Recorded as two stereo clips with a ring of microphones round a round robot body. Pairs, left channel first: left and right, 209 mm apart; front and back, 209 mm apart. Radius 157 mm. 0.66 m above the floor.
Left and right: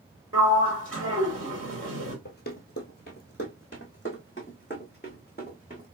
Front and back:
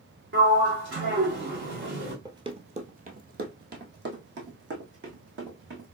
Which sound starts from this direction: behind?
A sliding door, at 0.3 s.